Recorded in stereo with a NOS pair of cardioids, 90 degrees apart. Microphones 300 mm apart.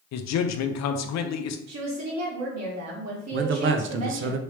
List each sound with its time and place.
0.1 s a man speaking: 60° left, 0.6 m
1.7 s a woman speaking: 65° right, 1.5 m
3.3 s a man speaking: 45° right, 0.5 m